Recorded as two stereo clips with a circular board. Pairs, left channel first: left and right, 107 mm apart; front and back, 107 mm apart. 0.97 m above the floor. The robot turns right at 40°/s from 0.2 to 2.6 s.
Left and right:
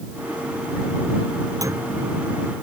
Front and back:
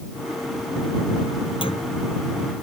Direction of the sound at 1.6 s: 30° right.